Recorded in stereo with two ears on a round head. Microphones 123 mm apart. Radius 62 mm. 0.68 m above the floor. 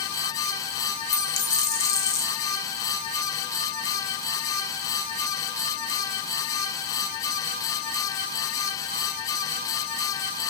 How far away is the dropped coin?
About 1.0 m.